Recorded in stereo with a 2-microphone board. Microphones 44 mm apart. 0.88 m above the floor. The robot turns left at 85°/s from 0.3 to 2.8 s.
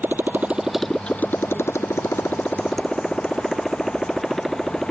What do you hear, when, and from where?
0.0 s a motorcycle: 50° right (ahead or behind); by 4.9 s centre (ahead or behind)